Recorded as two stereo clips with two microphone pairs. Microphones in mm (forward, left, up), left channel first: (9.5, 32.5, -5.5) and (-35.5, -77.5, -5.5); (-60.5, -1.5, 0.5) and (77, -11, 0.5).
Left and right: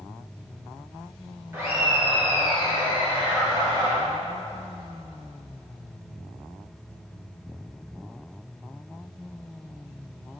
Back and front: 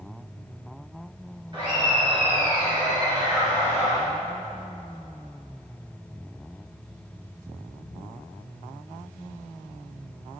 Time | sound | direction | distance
1.5 | laughter | 50° right | 3 m